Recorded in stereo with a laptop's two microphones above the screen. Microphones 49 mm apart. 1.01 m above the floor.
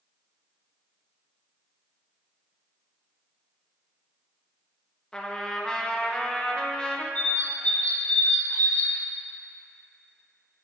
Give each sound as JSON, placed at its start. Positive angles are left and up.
{"t": 5.1, "sound": "a trumpet", "side_deg": 15, "distance_m": 0.7}
{"t": 7.2, "sound": "a bird", "side_deg": 35, "distance_m": 0.7}